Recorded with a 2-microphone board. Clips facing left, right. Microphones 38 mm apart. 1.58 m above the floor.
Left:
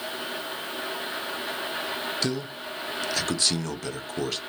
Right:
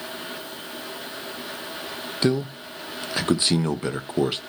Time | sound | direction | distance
2.2 | a man speaking | 25° right (ahead or behind) | 0.6 m